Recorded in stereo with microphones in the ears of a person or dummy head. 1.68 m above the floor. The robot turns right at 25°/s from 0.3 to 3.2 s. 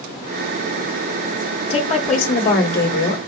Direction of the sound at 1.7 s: 30° left.